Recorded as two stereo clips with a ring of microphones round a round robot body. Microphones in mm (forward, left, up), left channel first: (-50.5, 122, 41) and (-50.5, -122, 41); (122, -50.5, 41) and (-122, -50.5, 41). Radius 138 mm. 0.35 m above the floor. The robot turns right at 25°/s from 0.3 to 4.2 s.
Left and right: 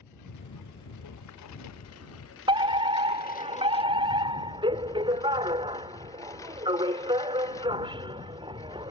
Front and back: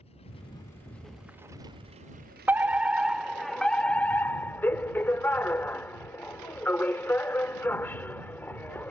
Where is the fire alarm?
110° right; by 8.9 s 70° right.